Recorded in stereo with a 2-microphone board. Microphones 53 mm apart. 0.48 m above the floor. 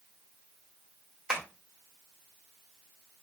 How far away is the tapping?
About 1.4 m.